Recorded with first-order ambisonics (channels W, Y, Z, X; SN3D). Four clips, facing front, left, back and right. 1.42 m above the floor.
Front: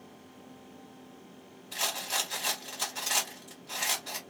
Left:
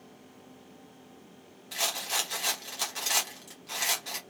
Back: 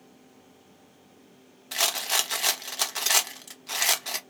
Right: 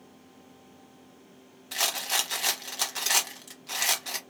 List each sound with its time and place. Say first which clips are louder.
1.7 s a rattle: right 3 dB, back 6 dB; 160° right, 0.9 m